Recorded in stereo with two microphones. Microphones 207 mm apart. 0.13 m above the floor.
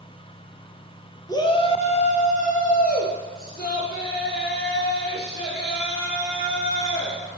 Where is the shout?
15° left (ahead or behind), 1.4 m; by 7.4 s 55° left (ahead or behind), 7 m.